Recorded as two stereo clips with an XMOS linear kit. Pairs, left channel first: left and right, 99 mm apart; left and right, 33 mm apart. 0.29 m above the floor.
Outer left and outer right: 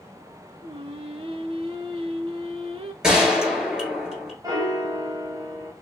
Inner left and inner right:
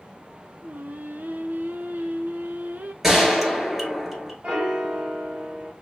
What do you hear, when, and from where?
0.6 s singing: 80° right, 0.5 m
3.0 s a gunshot: 5° right (ahead or behind), 1.4 m
4.4 s a piano: 40° right (ahead or behind), 1.5 m